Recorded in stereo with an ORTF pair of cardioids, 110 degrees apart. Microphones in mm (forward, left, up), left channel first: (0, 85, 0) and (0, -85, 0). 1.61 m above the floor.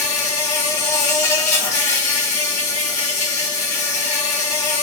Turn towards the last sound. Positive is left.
turn(degrees=45)